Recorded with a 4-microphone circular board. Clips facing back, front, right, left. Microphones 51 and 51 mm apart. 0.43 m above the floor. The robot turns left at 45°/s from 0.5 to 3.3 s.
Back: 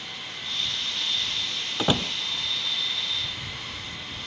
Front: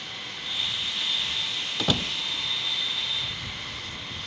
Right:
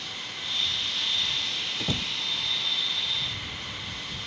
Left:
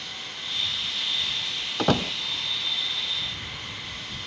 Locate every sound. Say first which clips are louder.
1.8 s a door slam: back 3 dB, left 11 dB; 115° left; by 2.1 s 100° left